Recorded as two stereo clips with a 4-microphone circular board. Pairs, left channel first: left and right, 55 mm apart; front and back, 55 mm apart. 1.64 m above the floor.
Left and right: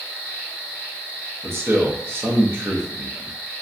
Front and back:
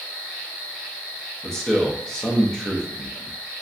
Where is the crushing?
I don't hear crushing.